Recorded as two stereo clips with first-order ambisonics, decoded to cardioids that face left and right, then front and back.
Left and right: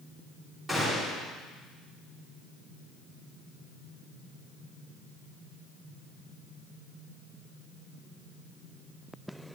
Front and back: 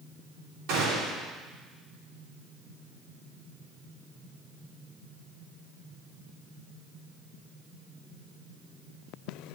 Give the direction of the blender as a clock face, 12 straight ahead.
I don't hear a blender.